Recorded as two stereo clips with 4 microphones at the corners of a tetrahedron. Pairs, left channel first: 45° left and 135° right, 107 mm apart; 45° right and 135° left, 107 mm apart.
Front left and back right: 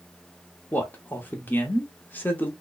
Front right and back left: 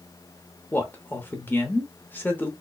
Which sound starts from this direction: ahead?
A man speaking, at 0.7 s.